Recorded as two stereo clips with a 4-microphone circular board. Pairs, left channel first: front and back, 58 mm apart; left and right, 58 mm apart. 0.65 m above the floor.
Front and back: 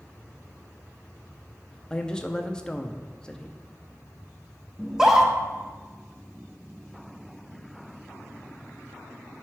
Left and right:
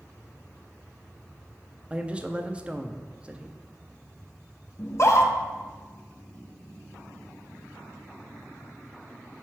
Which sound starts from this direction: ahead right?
A man speaking, at 1.9 s.